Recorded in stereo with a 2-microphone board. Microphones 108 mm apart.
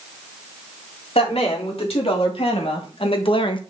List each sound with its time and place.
1.1 s a woman speaking: 65° left (ahead or behind), 4 m; by 3.6 s 50° left (ahead or behind), 1.2 m